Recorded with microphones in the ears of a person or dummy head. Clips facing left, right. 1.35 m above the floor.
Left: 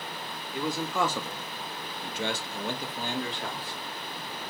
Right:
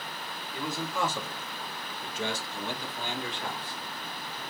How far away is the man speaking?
About 0.9 m.